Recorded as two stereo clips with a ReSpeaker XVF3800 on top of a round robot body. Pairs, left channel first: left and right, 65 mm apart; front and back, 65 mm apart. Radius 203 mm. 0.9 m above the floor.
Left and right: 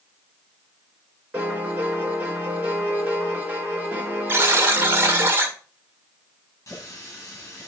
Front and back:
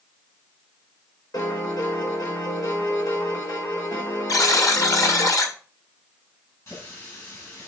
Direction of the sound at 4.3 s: 35° right.